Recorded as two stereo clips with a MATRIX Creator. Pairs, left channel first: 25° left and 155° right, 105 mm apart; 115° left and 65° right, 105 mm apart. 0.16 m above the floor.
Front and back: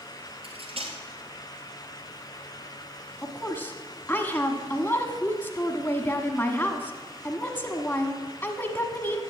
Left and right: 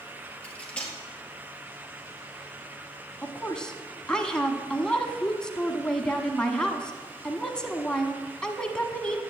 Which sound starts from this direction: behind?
Cutlery clinking, at 0.4 s.